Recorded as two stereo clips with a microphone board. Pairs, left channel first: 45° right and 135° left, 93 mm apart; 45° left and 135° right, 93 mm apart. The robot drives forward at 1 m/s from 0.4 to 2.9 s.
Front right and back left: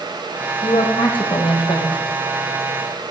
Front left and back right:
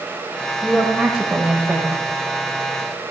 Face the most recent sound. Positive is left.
turn(degrees=-90)